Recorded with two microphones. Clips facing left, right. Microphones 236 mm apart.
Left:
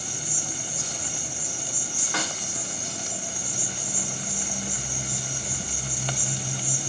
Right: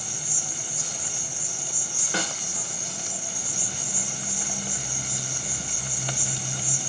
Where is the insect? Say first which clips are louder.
Left 3 dB; 35° left (ahead or behind), 2.5 m.